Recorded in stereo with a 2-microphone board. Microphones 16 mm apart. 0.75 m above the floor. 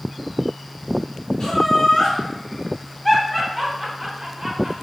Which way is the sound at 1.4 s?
55° left (ahead or behind).